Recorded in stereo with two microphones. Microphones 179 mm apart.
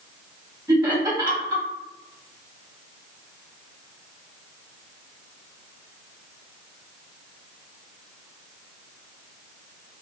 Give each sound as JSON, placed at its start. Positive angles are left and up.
{"t": 0.7, "sound": "laughter", "side_deg": -15, "distance_m": 1.3}